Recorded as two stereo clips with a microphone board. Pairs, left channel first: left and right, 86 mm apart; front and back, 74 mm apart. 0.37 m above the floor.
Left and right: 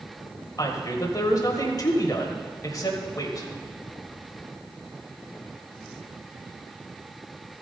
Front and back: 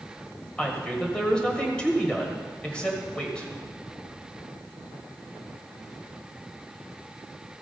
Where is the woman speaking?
70° left, 1.8 m.